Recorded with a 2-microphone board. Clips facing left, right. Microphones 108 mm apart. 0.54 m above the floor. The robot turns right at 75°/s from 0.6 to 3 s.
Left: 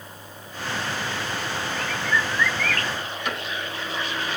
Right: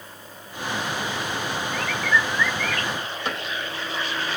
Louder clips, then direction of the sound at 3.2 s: Even; 30° right (ahead or behind).